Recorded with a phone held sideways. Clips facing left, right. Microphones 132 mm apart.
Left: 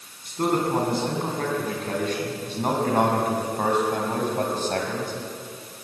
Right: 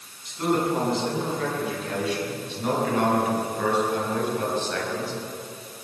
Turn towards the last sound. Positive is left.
turn(degrees=50)  # may be behind; listen again after turning